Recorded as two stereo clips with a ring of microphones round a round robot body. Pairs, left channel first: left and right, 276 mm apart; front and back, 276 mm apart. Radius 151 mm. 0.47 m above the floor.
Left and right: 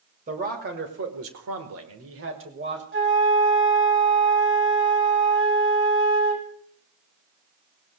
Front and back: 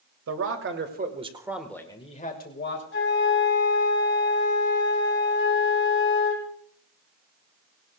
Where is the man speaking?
155° right, 2.5 m; by 2.8 s 45° right, 2.5 m.